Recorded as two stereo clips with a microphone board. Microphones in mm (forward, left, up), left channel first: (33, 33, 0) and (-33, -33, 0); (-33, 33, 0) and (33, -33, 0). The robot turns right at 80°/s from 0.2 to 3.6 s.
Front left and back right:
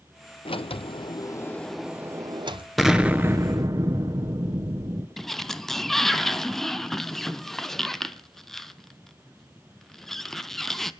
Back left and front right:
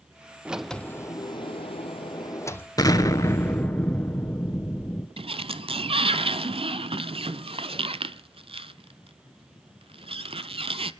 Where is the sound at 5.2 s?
40° right, 0.6 m.